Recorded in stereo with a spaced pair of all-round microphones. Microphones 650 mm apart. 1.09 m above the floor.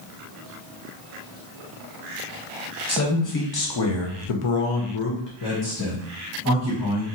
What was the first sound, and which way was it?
A man speaking, 25° left (ahead or behind).